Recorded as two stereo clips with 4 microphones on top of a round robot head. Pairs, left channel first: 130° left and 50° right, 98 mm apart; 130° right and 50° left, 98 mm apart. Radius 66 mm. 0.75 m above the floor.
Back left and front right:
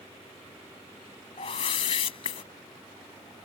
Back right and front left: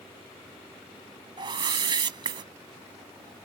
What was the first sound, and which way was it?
A whoosh, 95° left.